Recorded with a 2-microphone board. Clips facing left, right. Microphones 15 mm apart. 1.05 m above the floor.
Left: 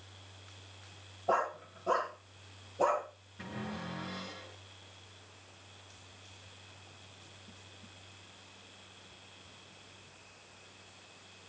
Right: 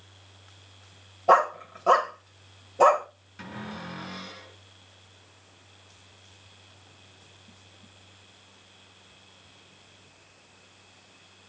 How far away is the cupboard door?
About 8.5 m.